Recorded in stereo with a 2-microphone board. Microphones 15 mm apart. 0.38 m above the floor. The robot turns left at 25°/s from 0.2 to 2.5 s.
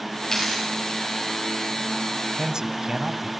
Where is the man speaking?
50° right (ahead or behind), 2 m.